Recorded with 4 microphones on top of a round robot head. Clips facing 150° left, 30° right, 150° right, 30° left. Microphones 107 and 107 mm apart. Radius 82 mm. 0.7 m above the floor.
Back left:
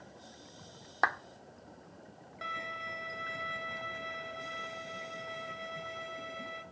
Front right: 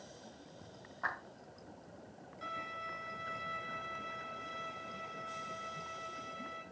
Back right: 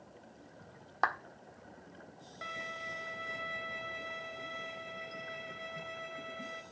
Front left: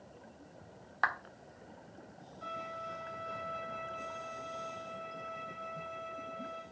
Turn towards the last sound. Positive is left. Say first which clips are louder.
# back left 3 dB, front left 2 dB
turn(degrees=-175)